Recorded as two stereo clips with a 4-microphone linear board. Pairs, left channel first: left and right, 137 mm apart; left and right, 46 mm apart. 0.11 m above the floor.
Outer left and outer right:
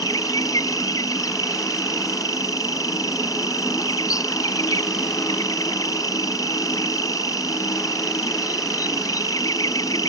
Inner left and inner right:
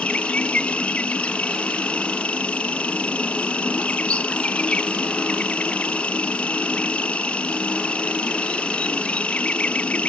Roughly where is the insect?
Left.